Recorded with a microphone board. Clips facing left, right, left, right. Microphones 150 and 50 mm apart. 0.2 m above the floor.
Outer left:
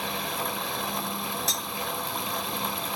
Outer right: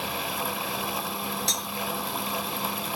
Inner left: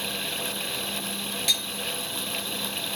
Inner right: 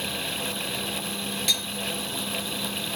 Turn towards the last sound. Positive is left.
turn(degrees=0)  # may be behind; listen again after turning